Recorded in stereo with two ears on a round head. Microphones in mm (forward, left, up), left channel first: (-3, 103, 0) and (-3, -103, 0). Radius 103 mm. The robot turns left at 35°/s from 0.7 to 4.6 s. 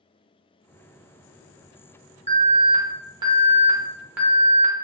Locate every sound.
2.3 s an alarm: 25° right (ahead or behind), 0.8 m; by 4.8 s centre (ahead or behind), 0.8 m